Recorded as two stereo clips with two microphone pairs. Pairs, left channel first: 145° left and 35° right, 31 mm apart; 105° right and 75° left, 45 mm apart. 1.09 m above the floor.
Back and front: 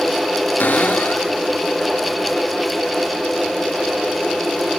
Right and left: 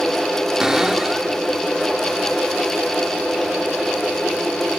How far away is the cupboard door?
About 1.6 m.